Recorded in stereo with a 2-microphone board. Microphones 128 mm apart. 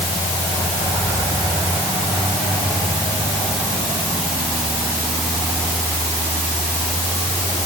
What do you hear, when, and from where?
Only background noise.